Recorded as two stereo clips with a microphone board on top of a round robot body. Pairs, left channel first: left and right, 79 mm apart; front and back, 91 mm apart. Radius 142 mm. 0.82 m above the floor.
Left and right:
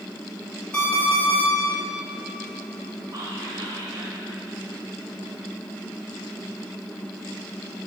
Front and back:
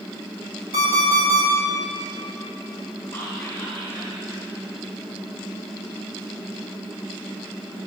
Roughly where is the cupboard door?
I don't hear a cupboard door.